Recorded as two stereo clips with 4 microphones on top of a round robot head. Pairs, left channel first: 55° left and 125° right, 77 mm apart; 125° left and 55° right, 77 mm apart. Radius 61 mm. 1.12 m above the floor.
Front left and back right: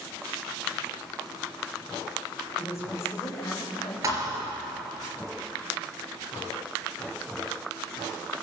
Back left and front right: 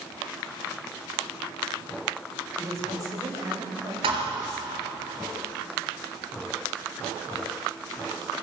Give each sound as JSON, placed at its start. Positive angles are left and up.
{"t": 2.6, "sound": "a woman speaking", "azimuth_deg": -5, "distance_m": 6.5}
{"t": 4.0, "sound": "a thud", "azimuth_deg": -75, "distance_m": 5.0}